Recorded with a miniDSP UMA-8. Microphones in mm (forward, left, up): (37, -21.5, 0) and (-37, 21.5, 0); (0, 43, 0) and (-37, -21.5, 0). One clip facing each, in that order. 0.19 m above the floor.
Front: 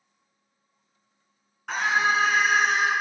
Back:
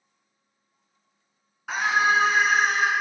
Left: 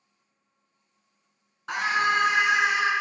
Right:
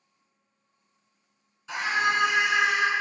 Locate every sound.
1.7 s a scream: 55° left, 1.6 m; by 2.9 s 140° left, 1.2 m